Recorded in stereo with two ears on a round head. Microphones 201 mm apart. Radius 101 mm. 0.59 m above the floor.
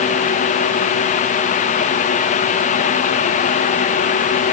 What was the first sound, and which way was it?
Only background noise.